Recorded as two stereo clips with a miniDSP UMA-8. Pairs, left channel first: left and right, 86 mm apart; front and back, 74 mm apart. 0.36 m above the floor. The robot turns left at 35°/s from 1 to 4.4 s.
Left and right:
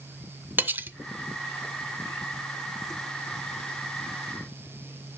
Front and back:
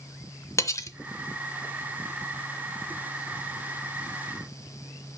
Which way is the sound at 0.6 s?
30° right.